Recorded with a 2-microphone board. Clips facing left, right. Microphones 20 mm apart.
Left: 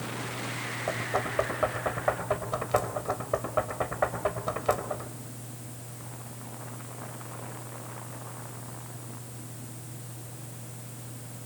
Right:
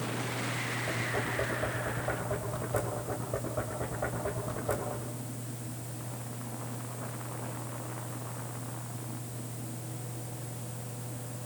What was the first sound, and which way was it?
Knocking, 55° left (ahead or behind).